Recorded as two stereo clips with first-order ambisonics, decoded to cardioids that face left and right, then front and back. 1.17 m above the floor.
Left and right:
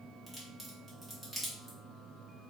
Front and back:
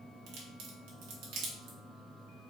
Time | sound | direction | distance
0.3 | a crack | 170° left | 1.3 m